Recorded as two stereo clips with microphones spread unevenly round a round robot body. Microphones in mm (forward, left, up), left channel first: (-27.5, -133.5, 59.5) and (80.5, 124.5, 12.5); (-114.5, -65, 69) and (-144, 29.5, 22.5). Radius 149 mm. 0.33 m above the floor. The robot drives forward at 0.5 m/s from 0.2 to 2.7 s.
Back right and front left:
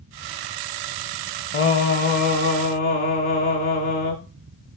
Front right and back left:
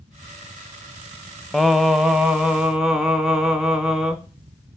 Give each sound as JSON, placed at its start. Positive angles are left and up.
{"t": 1.5, "sound": "singing", "azimuth_deg": -165, "distance_m": 0.7}